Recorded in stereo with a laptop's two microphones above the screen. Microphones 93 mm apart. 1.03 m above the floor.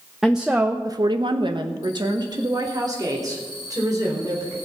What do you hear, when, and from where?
0.2 s a woman speaking: 5° right (ahead or behind), 1.1 m; by 4.6 s 35° right (ahead or behind), 4.5 m